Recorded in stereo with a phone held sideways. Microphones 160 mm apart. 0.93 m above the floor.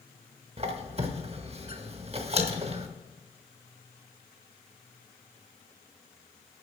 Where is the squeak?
40° right (ahead or behind), 0.9 m.